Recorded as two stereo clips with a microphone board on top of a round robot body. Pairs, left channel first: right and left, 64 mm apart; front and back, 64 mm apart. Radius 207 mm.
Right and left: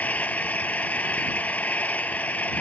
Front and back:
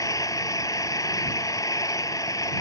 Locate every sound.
0.0 s an engine running: 25° right